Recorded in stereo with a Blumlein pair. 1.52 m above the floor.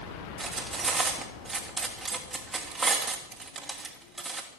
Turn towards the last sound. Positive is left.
turn(degrees=-15)